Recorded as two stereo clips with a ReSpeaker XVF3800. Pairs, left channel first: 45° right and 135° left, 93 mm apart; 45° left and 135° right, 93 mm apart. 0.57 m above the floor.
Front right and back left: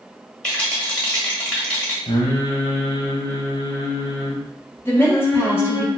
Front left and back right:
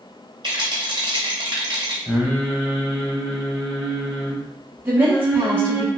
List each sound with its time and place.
0.4 s a rattle: 125° right, 1.0 m
2.1 s singing: 55° right, 0.7 m
4.8 s a woman speaking: 90° right, 0.8 m